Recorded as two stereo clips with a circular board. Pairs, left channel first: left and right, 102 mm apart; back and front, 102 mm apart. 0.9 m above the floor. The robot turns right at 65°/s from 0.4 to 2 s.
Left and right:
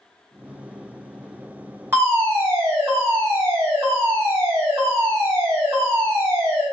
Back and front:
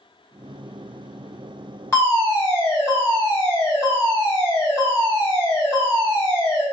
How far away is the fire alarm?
About 1.4 m.